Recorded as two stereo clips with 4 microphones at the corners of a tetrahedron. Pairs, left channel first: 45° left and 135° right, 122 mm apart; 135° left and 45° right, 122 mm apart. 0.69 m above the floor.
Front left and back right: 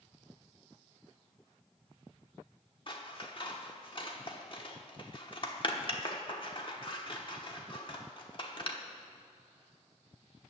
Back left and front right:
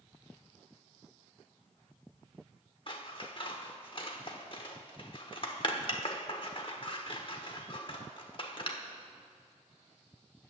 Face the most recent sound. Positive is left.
turn(degrees=90)